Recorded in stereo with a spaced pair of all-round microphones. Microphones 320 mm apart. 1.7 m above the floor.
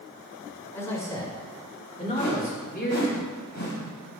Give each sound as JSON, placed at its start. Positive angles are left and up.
{"t": 0.7, "sound": "a man speaking", "side_deg": 10, "distance_m": 6.0}
{"t": 2.2, "sound": "a whoosh", "side_deg": 55, "distance_m": 6.5}